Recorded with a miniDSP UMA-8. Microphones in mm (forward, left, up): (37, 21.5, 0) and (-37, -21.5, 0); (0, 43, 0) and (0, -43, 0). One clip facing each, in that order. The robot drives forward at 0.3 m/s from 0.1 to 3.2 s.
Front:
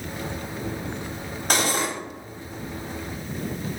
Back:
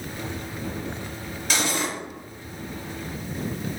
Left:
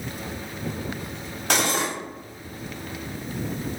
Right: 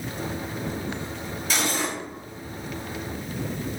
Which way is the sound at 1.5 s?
70° left.